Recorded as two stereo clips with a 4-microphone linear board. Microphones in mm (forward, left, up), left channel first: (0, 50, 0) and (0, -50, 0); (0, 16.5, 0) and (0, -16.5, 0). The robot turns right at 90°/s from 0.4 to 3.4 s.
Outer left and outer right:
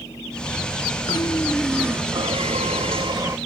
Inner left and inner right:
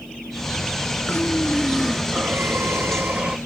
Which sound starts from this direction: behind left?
Breathing, at 1.1 s.